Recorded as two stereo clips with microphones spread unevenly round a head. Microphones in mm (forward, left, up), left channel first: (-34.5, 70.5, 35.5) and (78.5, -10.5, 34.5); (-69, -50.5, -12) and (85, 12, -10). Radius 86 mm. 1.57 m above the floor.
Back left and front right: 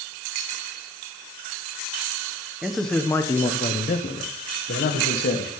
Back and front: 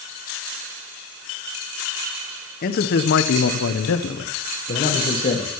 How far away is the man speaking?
About 1.3 m.